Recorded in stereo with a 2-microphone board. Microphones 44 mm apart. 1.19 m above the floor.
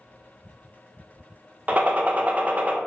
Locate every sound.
1.7 s a gunshot: 35° right (ahead or behind), 0.6 m